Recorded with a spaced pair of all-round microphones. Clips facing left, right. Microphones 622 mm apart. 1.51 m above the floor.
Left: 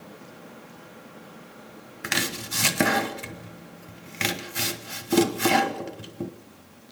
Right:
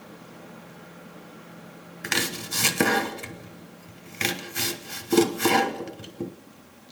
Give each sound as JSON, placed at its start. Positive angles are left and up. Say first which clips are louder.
{"t": 2.0, "sound": "chopping", "louder": "right 1 dB", "side_deg": 10, "distance_m": 1.0}